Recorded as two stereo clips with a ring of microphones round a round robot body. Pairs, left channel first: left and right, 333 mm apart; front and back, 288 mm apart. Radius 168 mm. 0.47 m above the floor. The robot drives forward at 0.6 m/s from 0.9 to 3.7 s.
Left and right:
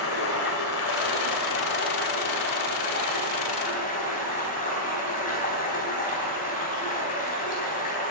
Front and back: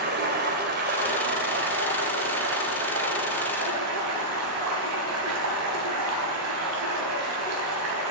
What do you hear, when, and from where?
0.0 s running water: 130° left, 2 m; by 8.1 s 155° left, 3.5 m